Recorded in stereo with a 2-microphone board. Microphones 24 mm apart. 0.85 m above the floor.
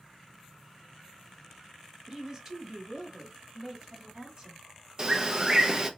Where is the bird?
25° right (ahead or behind), 0.6 m.